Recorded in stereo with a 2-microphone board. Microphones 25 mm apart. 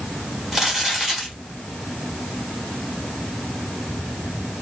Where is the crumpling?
20° right (ahead or behind), 1.3 m.